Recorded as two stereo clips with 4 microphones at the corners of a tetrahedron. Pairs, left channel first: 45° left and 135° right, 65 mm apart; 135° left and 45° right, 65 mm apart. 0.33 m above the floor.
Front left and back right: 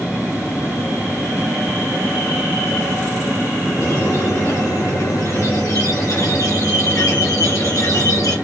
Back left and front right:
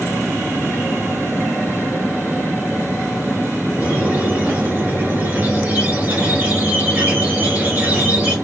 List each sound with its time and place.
3.8 s a squeak: 15° left, 1.3 m